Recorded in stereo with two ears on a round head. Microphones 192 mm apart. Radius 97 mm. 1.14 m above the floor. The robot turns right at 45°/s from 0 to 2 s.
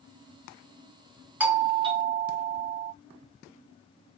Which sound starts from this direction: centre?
A doorbell, at 1.4 s.